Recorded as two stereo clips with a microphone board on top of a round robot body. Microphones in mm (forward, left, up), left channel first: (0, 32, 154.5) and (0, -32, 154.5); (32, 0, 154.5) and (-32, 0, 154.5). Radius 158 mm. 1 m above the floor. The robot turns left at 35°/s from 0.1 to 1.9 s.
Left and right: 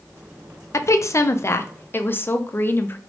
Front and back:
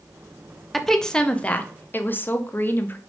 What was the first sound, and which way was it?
A woman speaking, 90° left.